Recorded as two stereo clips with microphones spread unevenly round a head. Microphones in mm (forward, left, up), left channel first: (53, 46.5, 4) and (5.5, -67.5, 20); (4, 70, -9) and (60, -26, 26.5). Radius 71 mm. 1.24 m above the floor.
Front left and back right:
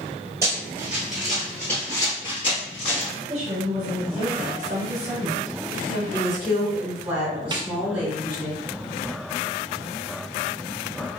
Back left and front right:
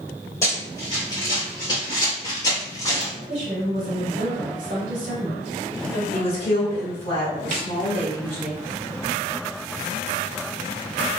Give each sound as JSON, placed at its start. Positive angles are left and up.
{"t": 0.4, "sound": "running footsteps", "azimuth_deg": -160, "distance_m": 1.5}
{"t": 3.3, "sound": "a woman speaking", "azimuth_deg": -100, "distance_m": 1.5}
{"t": 6.1, "sound": "a woman speaking", "azimuth_deg": 170, "distance_m": 1.4}
{"t": 7.5, "sound": "a snare drum", "azimuth_deg": -55, "distance_m": 0.5}